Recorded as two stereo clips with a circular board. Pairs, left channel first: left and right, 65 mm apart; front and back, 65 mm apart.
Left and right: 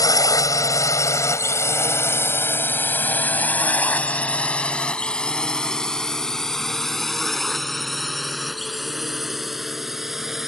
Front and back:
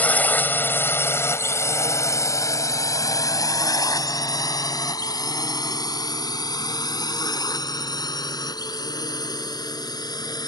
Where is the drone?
65° left; by 10.5 s 5° right.